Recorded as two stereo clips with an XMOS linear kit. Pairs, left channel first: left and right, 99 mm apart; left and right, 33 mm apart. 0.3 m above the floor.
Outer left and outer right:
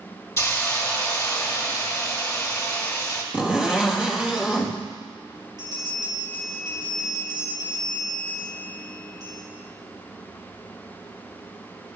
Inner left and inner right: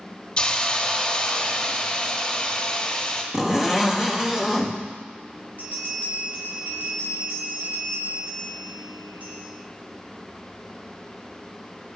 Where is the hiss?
30° left (ahead or behind), 1.5 m.